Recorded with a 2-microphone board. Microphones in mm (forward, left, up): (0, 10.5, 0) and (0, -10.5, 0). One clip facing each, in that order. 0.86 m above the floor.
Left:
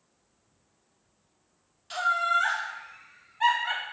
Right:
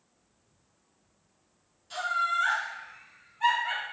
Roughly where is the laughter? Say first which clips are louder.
Left 3 dB; left.